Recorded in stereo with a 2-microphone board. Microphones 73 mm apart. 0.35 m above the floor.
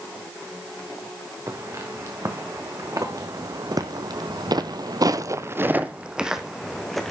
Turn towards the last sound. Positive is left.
turn(degrees=5)  # may be behind; listen again after turning